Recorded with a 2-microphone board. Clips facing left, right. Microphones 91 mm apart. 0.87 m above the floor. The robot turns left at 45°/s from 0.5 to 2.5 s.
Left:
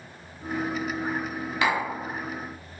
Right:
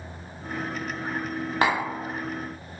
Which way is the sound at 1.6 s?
35° right (ahead or behind).